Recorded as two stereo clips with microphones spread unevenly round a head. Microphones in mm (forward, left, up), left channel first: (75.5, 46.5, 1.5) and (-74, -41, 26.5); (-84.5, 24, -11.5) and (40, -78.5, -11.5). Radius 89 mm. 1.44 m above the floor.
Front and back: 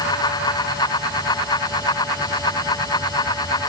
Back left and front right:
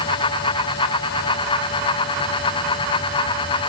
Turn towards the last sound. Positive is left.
No sound to turn to.